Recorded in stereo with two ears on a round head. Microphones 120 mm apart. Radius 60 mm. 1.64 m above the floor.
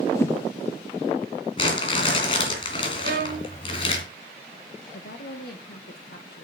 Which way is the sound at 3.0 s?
85° right.